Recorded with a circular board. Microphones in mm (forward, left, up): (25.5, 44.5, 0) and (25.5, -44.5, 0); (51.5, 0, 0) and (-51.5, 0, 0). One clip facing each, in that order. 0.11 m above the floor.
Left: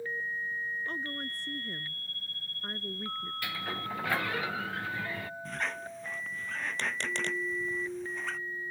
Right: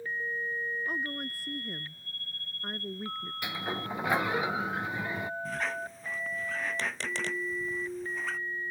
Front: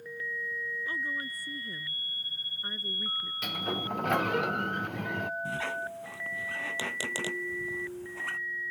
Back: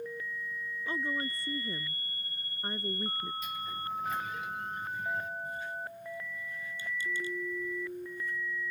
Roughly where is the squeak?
Ahead.